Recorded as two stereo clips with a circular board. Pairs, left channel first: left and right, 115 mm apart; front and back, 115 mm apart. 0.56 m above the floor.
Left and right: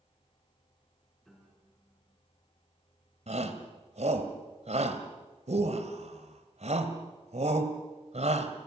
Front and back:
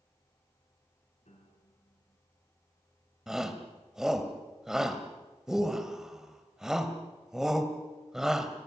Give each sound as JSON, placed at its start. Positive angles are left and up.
{"t": 1.2, "sound": "a piano", "azimuth_deg": 0, "distance_m": 6.0}
{"t": 3.3, "sound": "a shout", "azimuth_deg": -95, "distance_m": 2.5}